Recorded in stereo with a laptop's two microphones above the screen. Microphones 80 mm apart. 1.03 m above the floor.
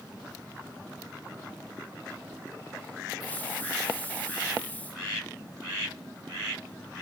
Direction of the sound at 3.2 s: 20° left (ahead or behind).